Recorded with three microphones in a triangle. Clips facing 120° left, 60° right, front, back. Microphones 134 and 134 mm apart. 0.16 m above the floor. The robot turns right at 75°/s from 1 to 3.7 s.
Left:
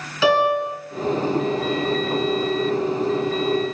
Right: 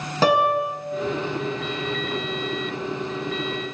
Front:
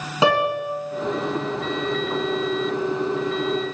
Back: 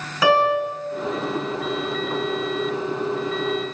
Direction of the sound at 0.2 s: 50° right.